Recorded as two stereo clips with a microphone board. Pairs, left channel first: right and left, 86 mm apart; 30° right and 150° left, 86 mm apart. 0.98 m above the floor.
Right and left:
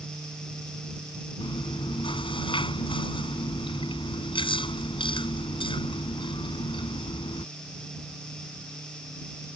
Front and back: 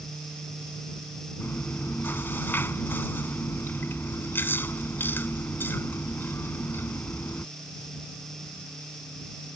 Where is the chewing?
95° right.